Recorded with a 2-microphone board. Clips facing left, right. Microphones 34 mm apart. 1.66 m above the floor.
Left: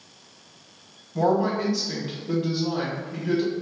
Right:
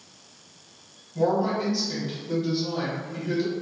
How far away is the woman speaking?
About 1.0 m.